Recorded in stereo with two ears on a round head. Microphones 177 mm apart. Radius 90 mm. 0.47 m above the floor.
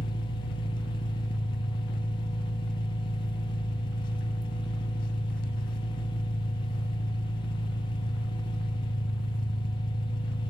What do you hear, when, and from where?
0.0 s an engine running: 40° left (ahead or behind), 0.7 m